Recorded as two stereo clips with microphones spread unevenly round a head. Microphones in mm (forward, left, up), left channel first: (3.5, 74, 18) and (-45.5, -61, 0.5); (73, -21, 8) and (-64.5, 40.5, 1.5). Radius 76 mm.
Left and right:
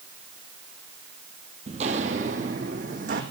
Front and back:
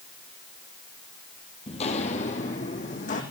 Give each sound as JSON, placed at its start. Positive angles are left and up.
{"t": 1.7, "sound": "footsteps", "azimuth_deg": -60, "distance_m": 2.5}